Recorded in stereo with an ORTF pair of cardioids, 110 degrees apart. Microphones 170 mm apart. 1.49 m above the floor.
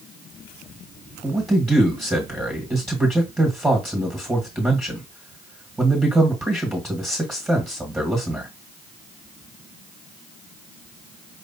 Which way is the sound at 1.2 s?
10° right.